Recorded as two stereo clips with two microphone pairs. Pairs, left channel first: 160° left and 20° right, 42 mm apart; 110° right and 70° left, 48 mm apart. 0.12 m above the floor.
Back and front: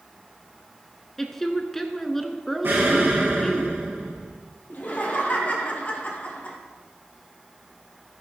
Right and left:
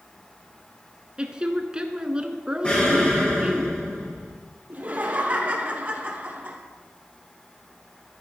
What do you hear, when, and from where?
1.2 s a woman speaking: 90° left, 1.1 m
2.6 s an explosion: 45° right, 5.5 m
4.7 s laughter: 120° left, 3 m